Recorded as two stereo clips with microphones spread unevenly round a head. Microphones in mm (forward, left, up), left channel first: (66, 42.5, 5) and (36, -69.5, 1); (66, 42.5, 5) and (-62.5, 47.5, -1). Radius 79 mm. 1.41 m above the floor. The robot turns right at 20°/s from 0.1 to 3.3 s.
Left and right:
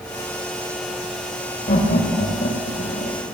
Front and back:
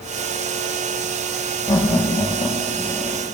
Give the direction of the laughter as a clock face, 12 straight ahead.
10 o'clock.